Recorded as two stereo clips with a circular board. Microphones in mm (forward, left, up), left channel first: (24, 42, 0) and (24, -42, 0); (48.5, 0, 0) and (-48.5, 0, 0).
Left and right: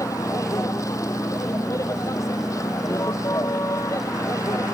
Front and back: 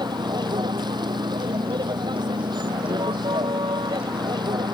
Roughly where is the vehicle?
Behind left.